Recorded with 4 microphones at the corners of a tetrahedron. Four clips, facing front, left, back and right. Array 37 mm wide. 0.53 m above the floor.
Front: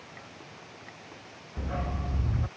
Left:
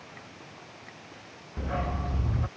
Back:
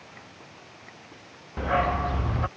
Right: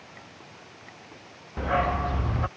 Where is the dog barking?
140° right.